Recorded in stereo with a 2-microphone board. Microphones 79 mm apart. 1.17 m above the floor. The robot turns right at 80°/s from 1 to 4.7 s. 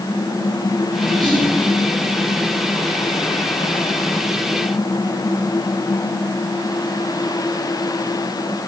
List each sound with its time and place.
1.2 s whispering: 60° right (ahead or behind), 0.9 m; by 1.5 s 85° right, 0.9 m